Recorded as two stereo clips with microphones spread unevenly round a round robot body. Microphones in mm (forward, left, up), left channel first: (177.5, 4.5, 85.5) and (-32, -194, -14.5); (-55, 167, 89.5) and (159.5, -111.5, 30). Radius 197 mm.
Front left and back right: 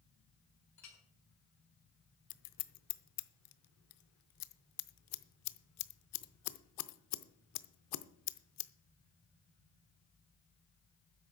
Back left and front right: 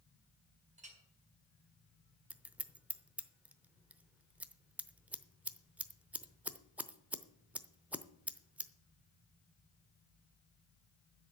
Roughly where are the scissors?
Ahead left.